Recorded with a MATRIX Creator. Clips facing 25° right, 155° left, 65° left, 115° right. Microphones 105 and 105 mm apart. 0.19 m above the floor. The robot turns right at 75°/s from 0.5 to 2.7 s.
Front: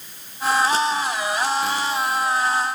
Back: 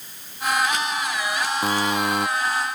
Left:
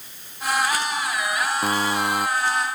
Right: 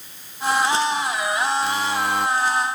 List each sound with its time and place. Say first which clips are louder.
1.6 s a buzzer: back 1 dB, even; 105° left; by 2.3 s 155° left